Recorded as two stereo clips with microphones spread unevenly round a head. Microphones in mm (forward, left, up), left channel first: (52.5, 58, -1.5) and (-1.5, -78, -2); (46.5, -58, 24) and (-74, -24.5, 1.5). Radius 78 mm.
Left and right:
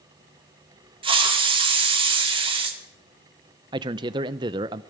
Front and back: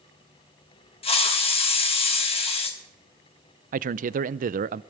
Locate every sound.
1.0 s a hiss: 55° right, 2 m
3.7 s a man speaking: 175° right, 0.5 m